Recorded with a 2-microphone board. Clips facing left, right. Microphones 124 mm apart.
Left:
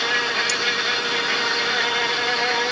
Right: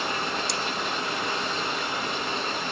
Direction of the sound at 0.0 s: 85° left.